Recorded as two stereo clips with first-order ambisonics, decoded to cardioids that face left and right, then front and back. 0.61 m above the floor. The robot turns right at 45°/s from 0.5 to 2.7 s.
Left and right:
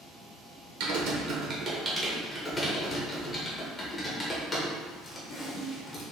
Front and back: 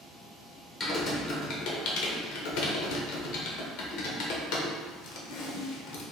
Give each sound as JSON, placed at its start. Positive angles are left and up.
{"t": 0.8, "sound": "typing on a keyboard", "azimuth_deg": -70, "distance_m": 0.8}